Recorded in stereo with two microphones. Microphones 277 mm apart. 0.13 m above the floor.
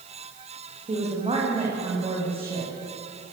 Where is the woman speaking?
25° right (ahead or behind), 8.5 m; by 2.7 s 20° right (ahead or behind), 10 m.